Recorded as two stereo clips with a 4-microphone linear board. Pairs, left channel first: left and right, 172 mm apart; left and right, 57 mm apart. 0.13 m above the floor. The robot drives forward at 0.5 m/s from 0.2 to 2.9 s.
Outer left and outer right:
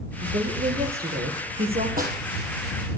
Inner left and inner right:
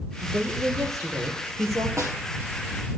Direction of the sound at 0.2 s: 65° right (ahead or behind).